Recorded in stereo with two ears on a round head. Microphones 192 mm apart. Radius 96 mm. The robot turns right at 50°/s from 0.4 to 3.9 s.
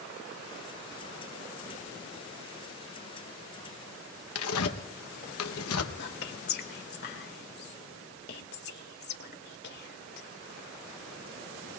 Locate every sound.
4.3 s tearing paper: 75° left (ahead or behind), 1.0 m
6.0 s whispering: 50° left (ahead or behind), 2 m